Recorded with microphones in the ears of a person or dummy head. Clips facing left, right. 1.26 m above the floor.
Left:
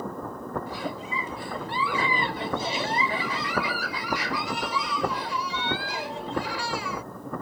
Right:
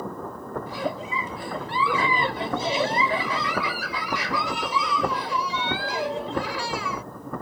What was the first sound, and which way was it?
A giggle, 70° right (ahead or behind).